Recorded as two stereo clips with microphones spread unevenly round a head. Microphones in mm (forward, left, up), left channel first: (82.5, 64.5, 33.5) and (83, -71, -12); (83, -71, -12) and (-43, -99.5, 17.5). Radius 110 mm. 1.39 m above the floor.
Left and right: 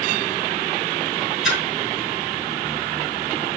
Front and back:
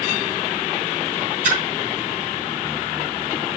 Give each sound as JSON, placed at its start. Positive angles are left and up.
{"t": 1.4, "sound": "a splash", "azimuth_deg": 175, "distance_m": 4.0}